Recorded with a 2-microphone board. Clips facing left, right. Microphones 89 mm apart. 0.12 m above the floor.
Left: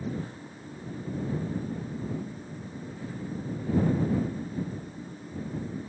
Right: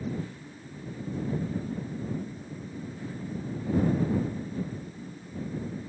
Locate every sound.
Only background noise.